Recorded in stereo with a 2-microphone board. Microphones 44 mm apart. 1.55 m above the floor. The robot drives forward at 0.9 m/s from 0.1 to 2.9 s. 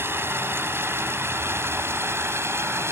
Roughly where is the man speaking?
I don't hear a man speaking.